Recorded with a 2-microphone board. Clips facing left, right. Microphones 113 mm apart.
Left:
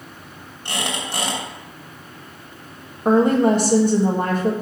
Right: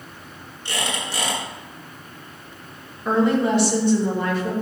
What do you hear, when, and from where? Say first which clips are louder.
0.7 s a squeak: left 1 dB; 50° left (ahead or behind), 6 m
3.0 s a woman speaking: left 4 dB; 45° left (ahead or behind), 2.5 m